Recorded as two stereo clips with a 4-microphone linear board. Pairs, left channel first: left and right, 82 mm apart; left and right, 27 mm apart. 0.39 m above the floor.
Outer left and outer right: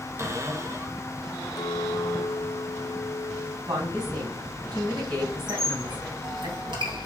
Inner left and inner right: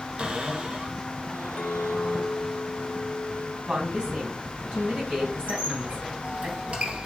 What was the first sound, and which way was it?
A cupboard door, 40° right (ahead or behind).